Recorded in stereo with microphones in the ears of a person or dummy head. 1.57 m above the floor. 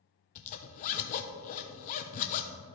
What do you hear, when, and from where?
0.3 s a zipper: 45° left (ahead or behind), 0.7 m